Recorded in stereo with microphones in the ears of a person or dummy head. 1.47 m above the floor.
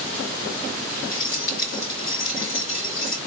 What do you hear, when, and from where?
1.1 s keys jangling: 50° left (ahead or behind), 2.5 m